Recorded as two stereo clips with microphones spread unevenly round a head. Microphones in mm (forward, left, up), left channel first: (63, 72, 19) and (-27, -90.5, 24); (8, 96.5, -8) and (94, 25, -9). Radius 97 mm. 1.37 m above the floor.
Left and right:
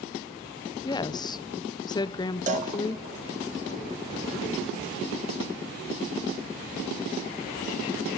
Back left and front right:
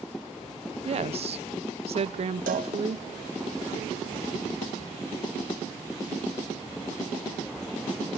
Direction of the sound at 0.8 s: 10° right.